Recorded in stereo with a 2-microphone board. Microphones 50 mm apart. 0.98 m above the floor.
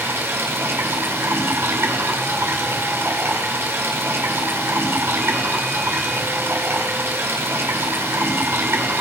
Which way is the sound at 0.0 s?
55° right (ahead or behind).